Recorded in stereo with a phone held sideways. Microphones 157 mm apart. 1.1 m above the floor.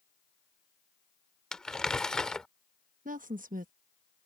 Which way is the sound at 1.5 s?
5° left (ahead or behind).